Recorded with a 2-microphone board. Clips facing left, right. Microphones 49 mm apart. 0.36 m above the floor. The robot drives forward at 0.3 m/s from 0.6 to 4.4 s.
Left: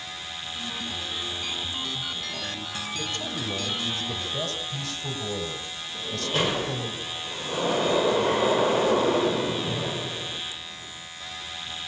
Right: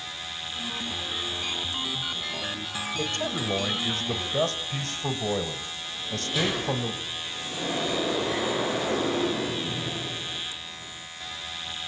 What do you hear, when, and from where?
2.9 s a man speaking: 45° right (ahead or behind), 1.5 m; by 6.9 s 50° right (ahead or behind), 1.4 m
5.9 s a sliding door: 50° left (ahead or behind), 5.5 m